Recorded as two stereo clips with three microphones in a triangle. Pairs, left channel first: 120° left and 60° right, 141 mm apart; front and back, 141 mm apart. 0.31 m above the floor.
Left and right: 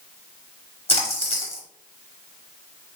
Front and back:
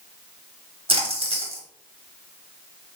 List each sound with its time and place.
0.9 s a splash: 145° left, 0.9 m